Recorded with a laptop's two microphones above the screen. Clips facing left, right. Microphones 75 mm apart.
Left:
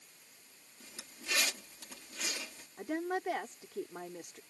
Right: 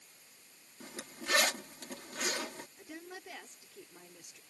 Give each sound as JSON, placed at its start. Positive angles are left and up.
{"t": 0.8, "sound": "a zipper", "side_deg": -55}
{"t": 2.8, "sound": "a woman speaking", "side_deg": 60}